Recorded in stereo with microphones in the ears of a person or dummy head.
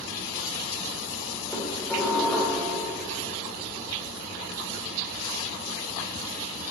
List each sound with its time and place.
1.5 s dishes clattering: 10° left (ahead or behind), 3.5 m